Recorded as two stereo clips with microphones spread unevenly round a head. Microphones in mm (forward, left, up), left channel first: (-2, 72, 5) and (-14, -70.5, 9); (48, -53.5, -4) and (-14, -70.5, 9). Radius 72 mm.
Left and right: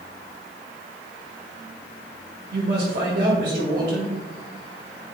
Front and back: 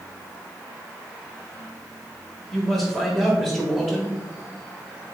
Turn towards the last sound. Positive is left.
turn(degrees=-70)